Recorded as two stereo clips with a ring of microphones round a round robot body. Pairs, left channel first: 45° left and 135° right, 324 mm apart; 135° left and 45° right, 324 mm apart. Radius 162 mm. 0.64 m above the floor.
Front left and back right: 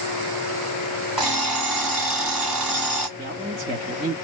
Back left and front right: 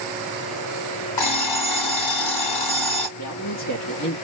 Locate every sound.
1.2 s an alarm clock: 135° left, 2.5 m
3.2 s a man speaking: 155° left, 1.6 m